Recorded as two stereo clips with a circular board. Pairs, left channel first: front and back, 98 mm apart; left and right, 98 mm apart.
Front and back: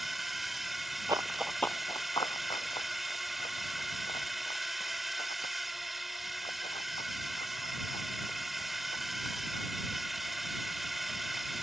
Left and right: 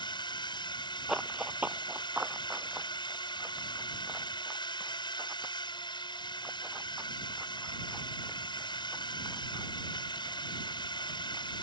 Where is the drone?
90° left.